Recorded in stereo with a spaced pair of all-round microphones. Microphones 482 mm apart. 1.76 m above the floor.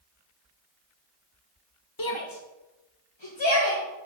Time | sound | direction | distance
2.0 | a shout | 45° left (ahead or behind) | 0.7 m